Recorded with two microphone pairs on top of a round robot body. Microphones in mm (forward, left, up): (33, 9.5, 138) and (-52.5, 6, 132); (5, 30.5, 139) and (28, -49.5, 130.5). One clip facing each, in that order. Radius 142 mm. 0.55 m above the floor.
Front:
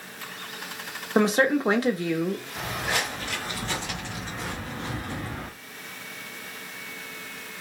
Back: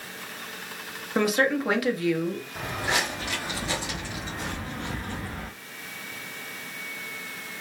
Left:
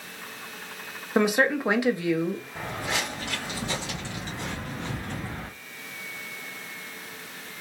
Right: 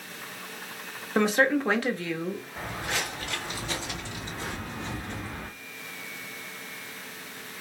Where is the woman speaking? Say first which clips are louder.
Front 2 dB, left 1 dB; 30° left, 1.0 m.